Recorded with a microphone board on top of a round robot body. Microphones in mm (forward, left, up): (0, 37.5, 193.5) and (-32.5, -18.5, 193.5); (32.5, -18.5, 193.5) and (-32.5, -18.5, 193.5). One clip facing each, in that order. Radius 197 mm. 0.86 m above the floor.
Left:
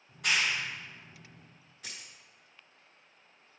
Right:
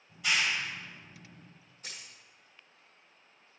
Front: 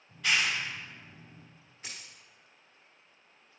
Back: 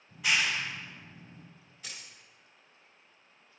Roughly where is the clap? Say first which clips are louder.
Even, even; left.